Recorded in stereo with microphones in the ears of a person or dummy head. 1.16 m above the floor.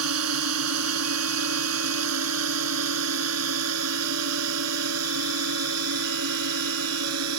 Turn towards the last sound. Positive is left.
turn(degrees=-85)